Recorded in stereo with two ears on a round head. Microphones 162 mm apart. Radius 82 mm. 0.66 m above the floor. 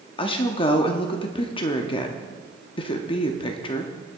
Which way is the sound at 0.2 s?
30° left (ahead or behind).